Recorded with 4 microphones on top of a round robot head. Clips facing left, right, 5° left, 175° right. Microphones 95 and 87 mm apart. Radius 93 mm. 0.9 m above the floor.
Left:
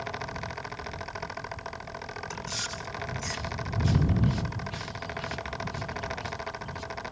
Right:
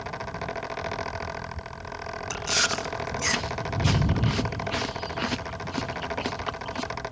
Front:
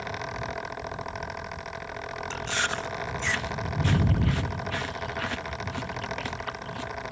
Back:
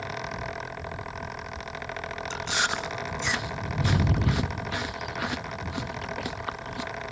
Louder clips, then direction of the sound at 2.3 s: Right 8 dB, back 1 dB; 100° right.